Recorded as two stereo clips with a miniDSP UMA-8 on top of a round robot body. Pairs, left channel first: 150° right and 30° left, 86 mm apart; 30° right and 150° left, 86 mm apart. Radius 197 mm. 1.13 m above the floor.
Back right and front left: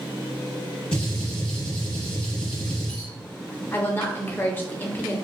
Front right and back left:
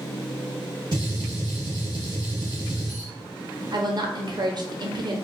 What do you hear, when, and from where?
0.9 s a gunshot: straight behind, 0.7 m
3.7 s a woman speaking: 150° left, 0.9 m